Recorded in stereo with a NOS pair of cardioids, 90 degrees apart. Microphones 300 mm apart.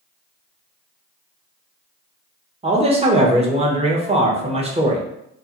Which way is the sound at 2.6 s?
20° right.